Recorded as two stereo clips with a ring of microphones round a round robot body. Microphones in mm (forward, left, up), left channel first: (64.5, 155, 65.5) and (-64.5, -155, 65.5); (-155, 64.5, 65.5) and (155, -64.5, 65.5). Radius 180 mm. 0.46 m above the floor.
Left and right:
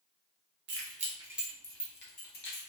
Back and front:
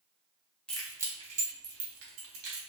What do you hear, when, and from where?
0.7 s keys jangling: 115° right, 0.8 m; by 2.7 s 15° left, 1.2 m